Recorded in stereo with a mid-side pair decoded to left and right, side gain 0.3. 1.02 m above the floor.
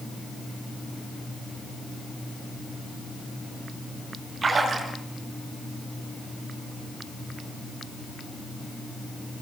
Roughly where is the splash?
Ahead right.